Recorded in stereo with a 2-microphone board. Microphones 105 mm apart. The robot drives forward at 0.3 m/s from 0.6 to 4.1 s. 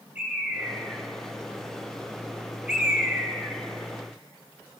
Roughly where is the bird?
Centre.